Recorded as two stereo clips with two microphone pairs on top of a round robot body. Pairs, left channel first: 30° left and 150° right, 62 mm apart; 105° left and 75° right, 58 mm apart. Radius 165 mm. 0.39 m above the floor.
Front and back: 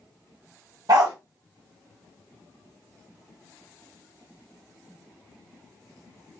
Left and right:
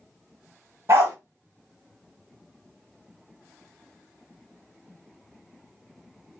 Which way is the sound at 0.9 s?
120° right.